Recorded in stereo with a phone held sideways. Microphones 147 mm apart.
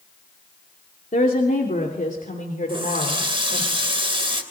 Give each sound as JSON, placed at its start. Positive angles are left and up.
{"t": 1.1, "sound": "a woman speaking", "side_deg": 80, "distance_m": 2.5}
{"t": 2.7, "sound": "a running tap", "side_deg": -40, "distance_m": 3.0}